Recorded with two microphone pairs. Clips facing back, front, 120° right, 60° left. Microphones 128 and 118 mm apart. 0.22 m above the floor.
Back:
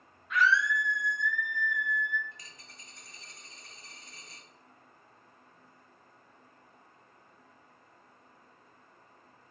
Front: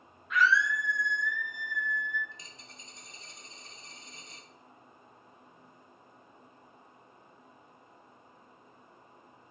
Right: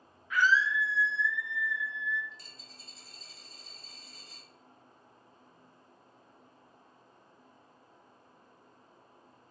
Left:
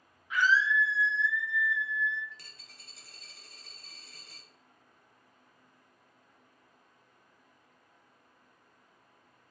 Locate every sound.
0.3 s a scream: 90° left, 0.9 m
2.3 s a dropped coin: 60° left, 0.8 m